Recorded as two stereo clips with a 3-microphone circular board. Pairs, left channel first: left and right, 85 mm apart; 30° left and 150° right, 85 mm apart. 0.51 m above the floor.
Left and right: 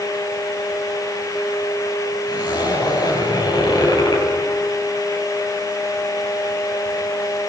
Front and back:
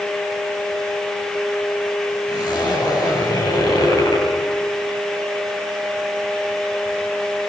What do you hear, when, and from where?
2.3 s a zipper: 60° left, 9.5 m